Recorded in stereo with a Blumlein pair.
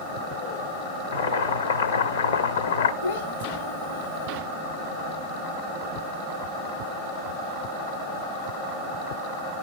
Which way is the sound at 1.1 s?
65° left.